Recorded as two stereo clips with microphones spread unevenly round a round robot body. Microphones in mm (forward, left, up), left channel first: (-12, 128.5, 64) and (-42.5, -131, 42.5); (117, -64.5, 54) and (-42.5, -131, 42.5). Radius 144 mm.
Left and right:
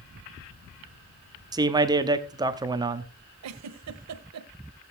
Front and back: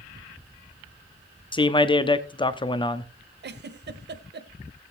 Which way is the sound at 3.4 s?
130° right.